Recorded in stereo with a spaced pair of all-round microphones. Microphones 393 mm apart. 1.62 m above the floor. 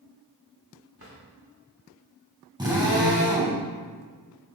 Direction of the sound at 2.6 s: 10° right (ahead or behind).